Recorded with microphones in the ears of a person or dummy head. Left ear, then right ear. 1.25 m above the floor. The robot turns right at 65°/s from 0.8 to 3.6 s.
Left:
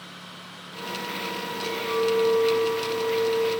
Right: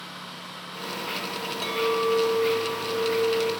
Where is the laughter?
I don't hear laughter.